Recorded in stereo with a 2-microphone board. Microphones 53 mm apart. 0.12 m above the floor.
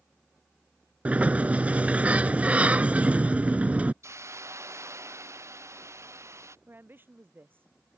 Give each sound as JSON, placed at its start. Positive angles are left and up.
{"t": 1.1, "sound": "a sliding door", "side_deg": -25}
{"t": 4.0, "sound": "a hiss", "side_deg": -60}
{"t": 6.7, "sound": "a woman speaking", "side_deg": -40}